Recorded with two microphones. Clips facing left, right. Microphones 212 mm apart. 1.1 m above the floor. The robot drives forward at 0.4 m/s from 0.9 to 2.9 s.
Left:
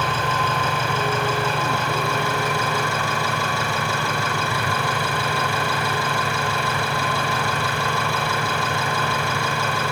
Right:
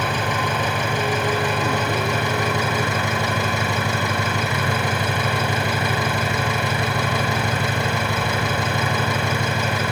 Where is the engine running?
15° right (ahead or behind), 6.5 m; by 9.9 s 20° right (ahead or behind), 5.5 m.